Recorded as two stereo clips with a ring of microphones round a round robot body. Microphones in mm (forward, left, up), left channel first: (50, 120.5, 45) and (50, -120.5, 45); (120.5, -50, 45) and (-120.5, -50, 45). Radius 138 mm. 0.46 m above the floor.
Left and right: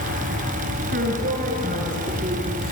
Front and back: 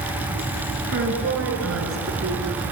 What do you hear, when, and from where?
0.9 s a woman speaking: 145° right, 6 m; by 2.6 s 155° right, 5 m